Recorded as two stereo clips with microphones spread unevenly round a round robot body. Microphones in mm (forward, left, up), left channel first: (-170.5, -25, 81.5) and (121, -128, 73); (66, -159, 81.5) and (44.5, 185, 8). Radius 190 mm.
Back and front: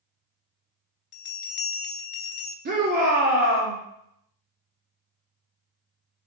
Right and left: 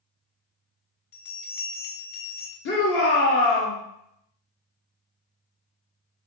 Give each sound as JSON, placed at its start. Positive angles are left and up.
{"t": 1.1, "sound": "a bell", "azimuth_deg": -150, "distance_m": 0.5}
{"t": 2.6, "sound": "a shout", "azimuth_deg": -35, "distance_m": 1.1}